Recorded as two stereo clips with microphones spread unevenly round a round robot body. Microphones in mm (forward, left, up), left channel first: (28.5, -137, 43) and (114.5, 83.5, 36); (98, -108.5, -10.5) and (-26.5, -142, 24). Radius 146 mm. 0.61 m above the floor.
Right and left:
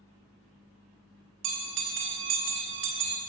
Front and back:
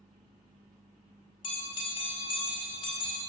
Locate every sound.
1.4 s a bell: 55° left, 1.6 m